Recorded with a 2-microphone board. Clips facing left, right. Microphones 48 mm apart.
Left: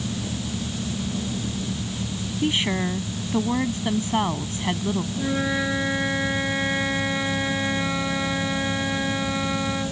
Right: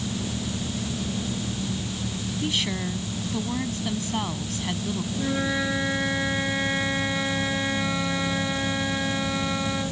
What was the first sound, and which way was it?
A woman speaking, 25° left (ahead or behind).